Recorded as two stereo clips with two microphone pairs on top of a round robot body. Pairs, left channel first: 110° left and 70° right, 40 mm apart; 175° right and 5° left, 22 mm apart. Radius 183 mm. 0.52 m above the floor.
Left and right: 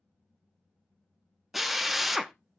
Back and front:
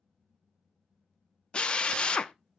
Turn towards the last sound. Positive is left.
turn(degrees=-160)